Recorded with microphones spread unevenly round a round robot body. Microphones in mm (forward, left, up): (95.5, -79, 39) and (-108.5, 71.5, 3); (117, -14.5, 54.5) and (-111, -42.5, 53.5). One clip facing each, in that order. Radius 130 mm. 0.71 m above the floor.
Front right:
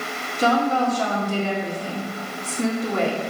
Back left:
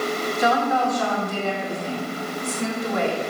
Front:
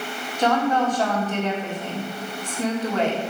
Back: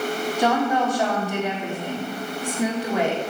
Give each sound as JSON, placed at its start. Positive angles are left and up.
{"t": 0.4, "sound": "a woman speaking", "azimuth_deg": -95, "distance_m": 1.8}